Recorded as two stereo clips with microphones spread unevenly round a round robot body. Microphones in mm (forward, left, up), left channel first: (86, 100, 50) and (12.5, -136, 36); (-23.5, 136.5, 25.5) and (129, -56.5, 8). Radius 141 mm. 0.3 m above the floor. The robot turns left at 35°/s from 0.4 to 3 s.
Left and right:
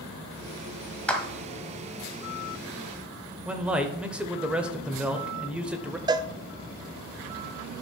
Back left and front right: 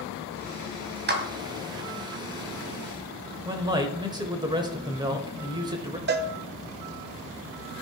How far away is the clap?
About 1.9 m.